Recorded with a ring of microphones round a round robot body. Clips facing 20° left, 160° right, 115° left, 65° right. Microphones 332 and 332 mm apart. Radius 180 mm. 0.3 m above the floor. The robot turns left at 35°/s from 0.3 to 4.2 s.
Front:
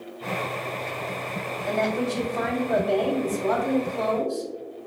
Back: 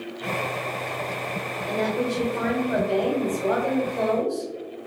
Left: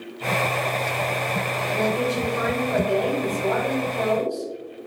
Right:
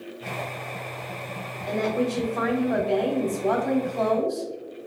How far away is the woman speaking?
About 1.6 m.